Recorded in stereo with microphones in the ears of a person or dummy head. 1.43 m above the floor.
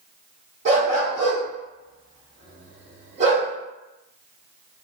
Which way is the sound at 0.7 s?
45° right (ahead or behind).